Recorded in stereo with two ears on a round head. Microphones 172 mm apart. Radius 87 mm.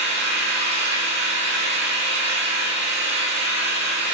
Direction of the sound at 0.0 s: 60° right (ahead or behind).